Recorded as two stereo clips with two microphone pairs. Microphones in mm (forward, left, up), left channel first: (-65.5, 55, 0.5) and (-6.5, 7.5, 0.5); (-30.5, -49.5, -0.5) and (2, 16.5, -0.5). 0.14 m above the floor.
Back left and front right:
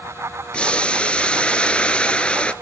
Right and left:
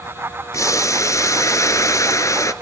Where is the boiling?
150° right, 0.7 m.